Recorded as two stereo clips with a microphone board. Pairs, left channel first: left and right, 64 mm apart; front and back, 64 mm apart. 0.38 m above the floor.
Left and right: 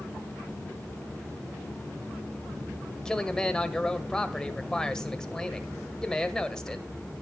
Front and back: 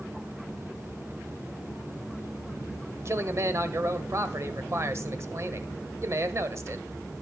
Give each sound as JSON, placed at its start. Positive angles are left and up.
{"t": 3.0, "sound": "a man speaking", "azimuth_deg": 165, "distance_m": 1.6}